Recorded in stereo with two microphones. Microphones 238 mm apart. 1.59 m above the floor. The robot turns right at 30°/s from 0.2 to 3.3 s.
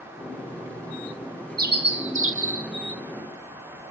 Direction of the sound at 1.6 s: 140° right.